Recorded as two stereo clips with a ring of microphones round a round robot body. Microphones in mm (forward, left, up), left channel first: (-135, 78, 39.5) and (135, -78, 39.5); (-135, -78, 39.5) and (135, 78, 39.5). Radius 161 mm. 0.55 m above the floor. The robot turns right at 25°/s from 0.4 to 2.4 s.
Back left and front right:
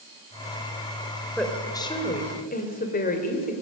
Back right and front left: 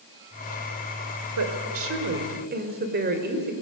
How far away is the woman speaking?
About 2.5 m.